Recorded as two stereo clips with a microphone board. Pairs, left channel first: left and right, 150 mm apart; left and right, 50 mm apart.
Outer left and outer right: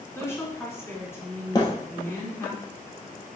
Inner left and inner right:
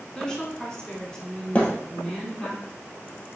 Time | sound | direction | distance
0.1 | a woman speaking | 15° left (ahead or behind) | 2 m
1.6 | a thud | 25° left (ahead or behind) | 1.7 m